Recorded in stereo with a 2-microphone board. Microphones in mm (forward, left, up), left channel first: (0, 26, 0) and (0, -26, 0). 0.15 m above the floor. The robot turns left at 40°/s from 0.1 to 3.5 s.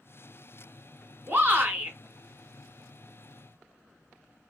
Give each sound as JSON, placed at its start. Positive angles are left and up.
{"t": 1.3, "sound": "a shout", "side_deg": -35, "distance_m": 1.3}